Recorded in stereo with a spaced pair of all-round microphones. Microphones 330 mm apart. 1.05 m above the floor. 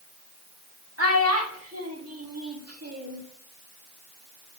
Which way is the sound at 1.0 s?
45° right (ahead or behind).